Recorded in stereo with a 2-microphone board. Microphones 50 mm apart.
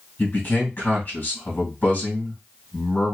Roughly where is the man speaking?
Left.